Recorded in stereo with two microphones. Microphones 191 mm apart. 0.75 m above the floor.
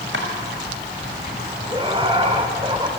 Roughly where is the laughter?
Right.